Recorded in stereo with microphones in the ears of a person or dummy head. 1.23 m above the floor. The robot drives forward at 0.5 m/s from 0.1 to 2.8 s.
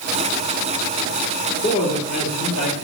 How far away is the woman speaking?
About 2.5 m.